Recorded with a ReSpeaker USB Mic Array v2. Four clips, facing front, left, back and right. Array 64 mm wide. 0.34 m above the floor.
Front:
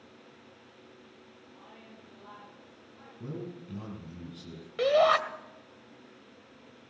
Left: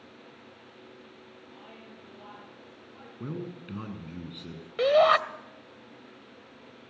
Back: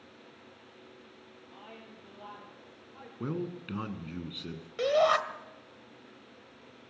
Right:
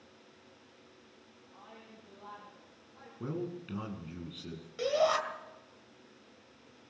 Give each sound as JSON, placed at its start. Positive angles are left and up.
{"t": 1.5, "sound": "a woman speaking", "azimuth_deg": 155, "distance_m": 6.5}
{"t": 3.2, "sound": "a man speaking", "azimuth_deg": 180, "distance_m": 3.0}
{"t": 4.8, "sound": "a shout", "azimuth_deg": 80, "distance_m": 1.6}